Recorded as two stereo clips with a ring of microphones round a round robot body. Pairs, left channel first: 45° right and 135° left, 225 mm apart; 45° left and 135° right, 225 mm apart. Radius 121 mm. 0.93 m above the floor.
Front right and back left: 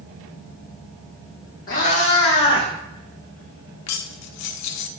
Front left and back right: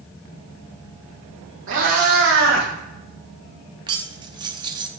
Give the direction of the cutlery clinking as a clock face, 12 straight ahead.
2 o'clock.